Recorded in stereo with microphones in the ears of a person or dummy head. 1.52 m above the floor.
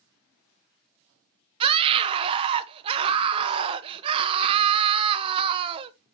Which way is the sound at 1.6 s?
30° right (ahead or behind).